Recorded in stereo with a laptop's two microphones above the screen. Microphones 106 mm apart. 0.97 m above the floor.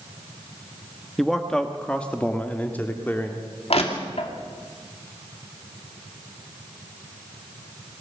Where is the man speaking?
Centre (ahead or behind), 1.3 m; by 3.5 s 20° left (ahead or behind), 2.5 m.